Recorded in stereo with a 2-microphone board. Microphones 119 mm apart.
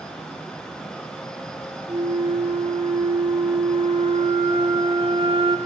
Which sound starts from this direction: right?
A flute, at 1.9 s.